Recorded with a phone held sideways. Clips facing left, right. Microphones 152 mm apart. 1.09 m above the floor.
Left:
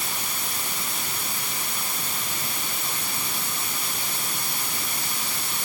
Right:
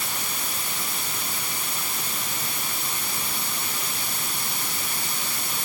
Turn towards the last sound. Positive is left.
No sound to turn to.